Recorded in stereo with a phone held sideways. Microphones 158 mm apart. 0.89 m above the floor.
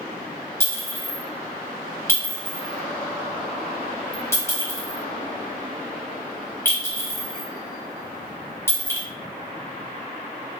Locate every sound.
0.6 s a clink: 15° left (ahead or behind), 1.6 m